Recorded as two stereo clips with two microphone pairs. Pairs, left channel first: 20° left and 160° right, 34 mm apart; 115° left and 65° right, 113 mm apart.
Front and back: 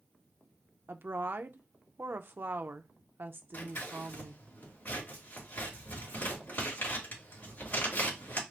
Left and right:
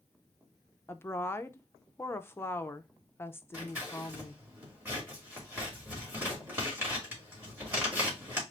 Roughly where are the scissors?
Ahead.